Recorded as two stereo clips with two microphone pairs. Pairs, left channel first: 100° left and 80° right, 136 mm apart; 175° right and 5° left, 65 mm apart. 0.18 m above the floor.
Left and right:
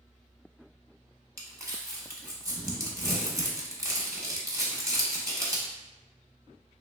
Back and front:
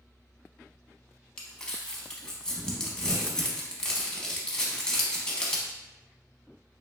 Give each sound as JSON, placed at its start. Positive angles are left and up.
{"t": 1.4, "sound": "crumpling", "azimuth_deg": -110, "distance_m": 0.7}